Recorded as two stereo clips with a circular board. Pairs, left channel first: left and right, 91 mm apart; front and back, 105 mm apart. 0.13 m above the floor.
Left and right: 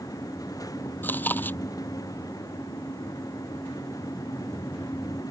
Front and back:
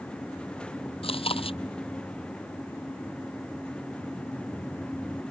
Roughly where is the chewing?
Ahead.